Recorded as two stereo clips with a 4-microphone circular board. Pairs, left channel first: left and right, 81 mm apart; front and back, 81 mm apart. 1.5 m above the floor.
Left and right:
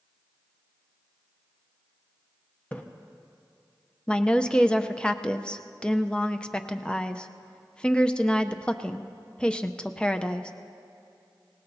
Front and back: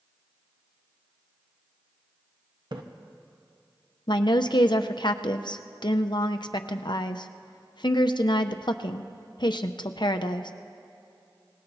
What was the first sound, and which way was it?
A splash, 160° left.